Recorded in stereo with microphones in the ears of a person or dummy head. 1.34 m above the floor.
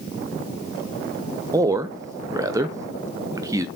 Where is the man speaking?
15° right (ahead or behind), 0.8 m.